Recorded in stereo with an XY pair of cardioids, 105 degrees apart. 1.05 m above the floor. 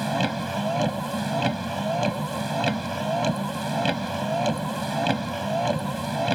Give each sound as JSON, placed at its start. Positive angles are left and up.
{"t": 0.0, "sound": "a vehicle", "azimuth_deg": 0}